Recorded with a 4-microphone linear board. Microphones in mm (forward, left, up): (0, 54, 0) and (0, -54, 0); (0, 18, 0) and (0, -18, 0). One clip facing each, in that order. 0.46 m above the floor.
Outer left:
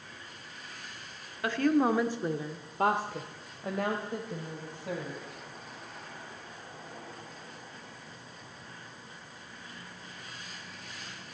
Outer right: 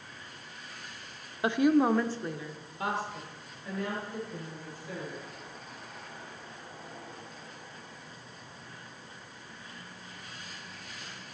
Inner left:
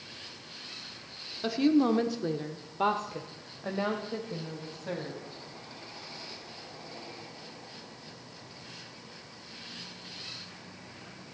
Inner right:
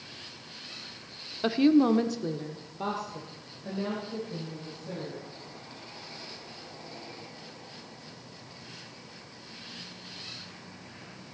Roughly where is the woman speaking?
Right.